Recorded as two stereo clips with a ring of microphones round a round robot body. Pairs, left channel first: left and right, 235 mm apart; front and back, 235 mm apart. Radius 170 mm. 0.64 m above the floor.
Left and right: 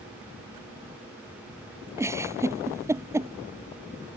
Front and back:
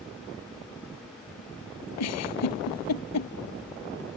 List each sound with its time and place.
2.0 s a giggle: 10° right